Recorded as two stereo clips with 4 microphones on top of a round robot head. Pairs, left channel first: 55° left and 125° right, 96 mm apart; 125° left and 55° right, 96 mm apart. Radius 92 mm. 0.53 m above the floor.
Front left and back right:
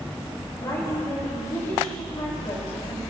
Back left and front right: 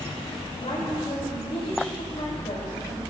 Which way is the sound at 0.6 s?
95° left.